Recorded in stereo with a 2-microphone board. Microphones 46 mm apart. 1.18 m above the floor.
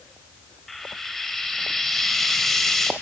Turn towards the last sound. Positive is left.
turn(degrees=5)  # may be behind; listen again after turning